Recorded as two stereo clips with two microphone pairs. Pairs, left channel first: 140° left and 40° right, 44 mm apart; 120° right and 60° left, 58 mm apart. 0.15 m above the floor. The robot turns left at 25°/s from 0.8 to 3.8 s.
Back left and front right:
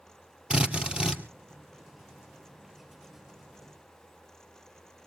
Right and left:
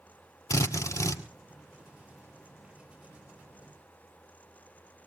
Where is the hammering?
I don't hear hammering.